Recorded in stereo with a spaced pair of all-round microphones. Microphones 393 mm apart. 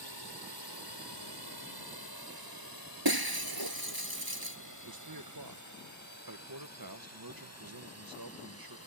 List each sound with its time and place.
0.0 s a drone: 80° right; by 8.9 s 35° right (ahead or behind)
3.0 s breaking glass: 65° right (ahead or behind)
4.8 s a man speaking: 60° right (ahead or behind)